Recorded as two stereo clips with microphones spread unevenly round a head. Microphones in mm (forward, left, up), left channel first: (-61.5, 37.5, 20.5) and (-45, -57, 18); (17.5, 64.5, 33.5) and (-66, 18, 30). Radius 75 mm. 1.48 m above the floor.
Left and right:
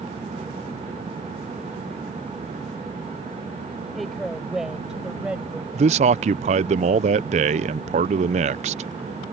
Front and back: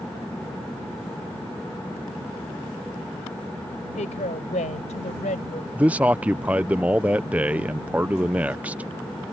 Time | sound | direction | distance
4.0 | a woman speaking | 10° left | ?
5.8 | a man speaking | 70° right | ?